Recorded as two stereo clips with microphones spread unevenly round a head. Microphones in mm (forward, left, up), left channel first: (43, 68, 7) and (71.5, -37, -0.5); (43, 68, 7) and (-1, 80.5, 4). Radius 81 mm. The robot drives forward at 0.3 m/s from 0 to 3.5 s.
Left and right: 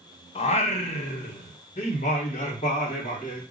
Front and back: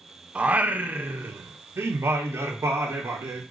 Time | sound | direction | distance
0.3 | singing | 95° left | 0.5 m